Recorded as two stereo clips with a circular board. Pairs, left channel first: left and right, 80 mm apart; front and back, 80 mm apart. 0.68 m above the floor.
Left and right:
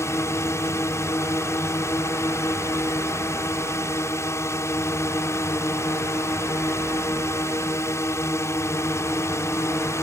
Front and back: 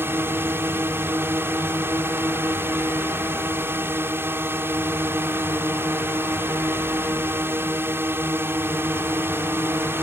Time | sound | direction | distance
0.0 | a drone | 130° left | ?